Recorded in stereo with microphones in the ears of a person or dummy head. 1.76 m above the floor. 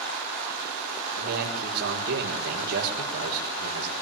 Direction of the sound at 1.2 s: 60° right (ahead or behind).